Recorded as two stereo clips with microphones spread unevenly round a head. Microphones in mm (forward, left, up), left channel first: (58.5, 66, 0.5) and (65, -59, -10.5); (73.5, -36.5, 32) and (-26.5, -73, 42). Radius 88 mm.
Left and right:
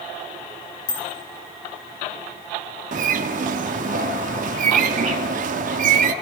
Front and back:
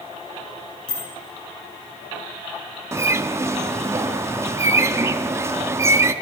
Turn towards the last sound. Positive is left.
turn(degrees=-100)